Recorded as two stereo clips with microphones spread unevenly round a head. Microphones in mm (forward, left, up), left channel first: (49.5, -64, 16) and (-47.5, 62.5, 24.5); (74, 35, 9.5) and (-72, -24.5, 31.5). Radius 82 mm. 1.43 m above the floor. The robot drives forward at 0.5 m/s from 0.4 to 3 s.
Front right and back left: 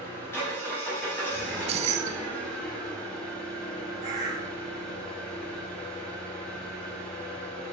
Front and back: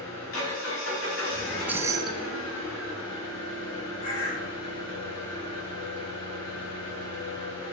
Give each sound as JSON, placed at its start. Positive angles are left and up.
{"t": 0.0, "sound": "an engine running", "azimuth_deg": 25, "distance_m": 5.0}
{"t": 1.4, "sound": "keys jangling", "azimuth_deg": 120, "distance_m": 0.5}
{"t": 4.0, "sound": "a bird", "azimuth_deg": 55, "distance_m": 4.0}